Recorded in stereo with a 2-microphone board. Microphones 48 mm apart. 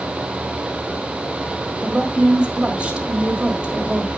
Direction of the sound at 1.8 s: 25° right (ahead or behind).